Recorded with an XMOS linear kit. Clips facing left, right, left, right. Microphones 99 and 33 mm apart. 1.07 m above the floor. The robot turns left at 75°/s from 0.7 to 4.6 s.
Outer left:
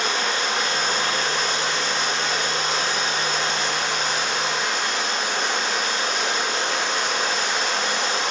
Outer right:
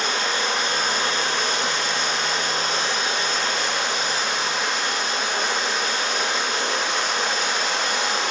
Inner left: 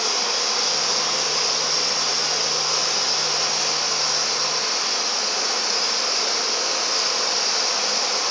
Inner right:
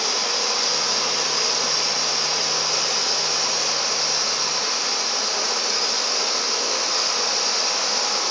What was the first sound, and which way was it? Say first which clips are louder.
Running water: even, even; straight ahead.